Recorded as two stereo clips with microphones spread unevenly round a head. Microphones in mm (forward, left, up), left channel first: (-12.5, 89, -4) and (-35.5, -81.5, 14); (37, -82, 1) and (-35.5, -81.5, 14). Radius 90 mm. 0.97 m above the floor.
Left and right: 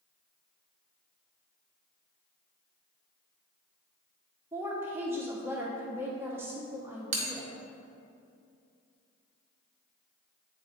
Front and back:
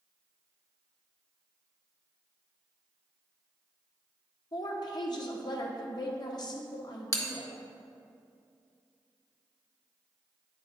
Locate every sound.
4.5 s a woman speaking: 20° right, 0.9 m
7.1 s a bell: 40° right, 1.2 m